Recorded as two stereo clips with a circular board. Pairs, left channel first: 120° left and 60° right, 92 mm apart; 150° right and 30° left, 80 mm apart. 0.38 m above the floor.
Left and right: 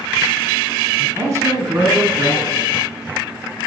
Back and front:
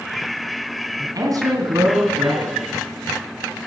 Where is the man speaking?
5° right, 3 m; by 2.7 s 15° right, 4.5 m.